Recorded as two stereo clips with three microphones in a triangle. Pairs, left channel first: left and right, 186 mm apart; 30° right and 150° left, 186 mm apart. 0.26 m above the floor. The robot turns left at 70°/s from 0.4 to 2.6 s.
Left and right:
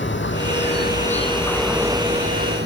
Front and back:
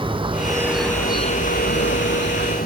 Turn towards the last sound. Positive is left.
turn(degrees=-65)